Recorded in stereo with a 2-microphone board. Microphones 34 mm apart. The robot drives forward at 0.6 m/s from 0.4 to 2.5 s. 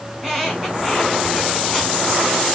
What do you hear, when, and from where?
0.1 s a squeak: 5° left (ahead or behind), 2.5 m; by 2.0 s 10° left (ahead or behind), 1.5 m